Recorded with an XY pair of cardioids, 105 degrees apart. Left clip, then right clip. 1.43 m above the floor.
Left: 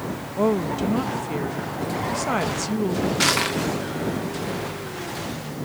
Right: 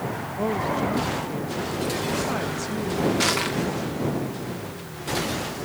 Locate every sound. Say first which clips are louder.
0.4 s a woman speaking: left 3 dB; 45° left
3.2 s crushing: left 6 dB; 25° left